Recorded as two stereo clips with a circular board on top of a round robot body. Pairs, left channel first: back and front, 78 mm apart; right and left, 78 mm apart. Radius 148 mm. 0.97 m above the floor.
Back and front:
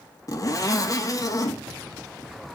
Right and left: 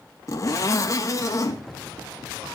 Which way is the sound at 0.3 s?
140° right.